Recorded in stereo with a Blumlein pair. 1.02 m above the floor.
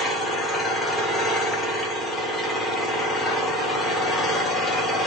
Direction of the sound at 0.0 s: 5° left.